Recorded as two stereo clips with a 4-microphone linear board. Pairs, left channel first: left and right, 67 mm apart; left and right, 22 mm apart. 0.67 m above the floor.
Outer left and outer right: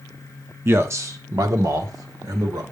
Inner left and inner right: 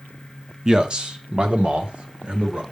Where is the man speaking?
35° right (ahead or behind), 0.9 m; by 2.6 s 70° right (ahead or behind), 2.5 m.